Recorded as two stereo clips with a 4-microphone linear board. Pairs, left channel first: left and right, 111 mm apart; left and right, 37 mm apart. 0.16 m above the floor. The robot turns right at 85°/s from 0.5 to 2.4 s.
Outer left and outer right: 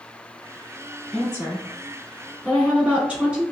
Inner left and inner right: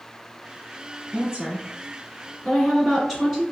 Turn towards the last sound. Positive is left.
turn(degrees=-10)  # may be behind; listen again after turning